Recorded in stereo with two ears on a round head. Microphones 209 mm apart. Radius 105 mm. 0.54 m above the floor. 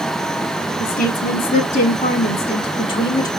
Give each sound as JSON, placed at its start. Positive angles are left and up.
{"t": 0.8, "sound": "a woman speaking", "side_deg": 35, "distance_m": 1.6}